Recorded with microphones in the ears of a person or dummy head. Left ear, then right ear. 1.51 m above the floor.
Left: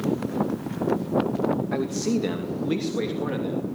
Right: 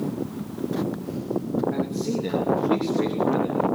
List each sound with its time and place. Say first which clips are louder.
1.7 s a man speaking: left 1 dB; 50° left (ahead or behind), 2.5 m; by 3.7 s 20° left (ahead or behind), 3 m